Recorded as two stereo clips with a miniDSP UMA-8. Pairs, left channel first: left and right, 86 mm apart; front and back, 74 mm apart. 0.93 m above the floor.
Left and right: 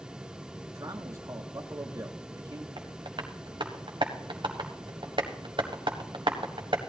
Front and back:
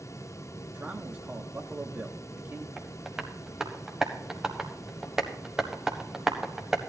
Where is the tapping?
100° right, 1.6 m.